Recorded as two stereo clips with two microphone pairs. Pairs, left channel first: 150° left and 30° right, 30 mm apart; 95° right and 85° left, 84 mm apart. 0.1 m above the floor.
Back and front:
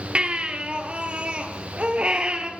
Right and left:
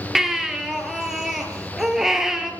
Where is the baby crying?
Straight ahead, 1.4 m.